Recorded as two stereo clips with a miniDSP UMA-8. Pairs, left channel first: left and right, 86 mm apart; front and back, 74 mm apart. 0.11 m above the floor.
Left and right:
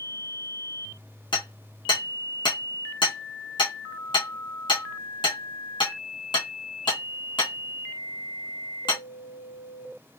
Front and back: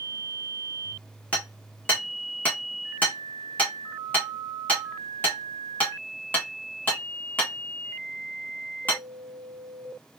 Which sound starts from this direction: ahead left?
Hammering, at 1.3 s.